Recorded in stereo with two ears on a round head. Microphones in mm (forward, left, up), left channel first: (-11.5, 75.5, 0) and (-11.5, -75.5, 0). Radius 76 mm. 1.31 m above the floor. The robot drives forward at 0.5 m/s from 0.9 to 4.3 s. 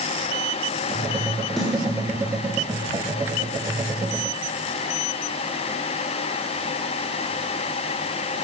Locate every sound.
1.6 s a snare drum: centre (ahead or behind), 3.5 m